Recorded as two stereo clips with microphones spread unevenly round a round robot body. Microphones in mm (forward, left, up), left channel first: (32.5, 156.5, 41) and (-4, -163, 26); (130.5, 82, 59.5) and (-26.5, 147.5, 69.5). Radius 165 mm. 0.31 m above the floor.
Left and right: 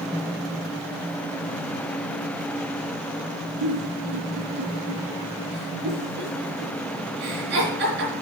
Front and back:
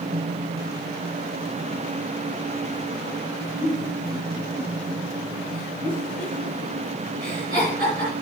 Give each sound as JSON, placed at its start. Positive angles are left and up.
{"t": 3.6, "sound": "a giggle", "azimuth_deg": -155, "distance_m": 4.0}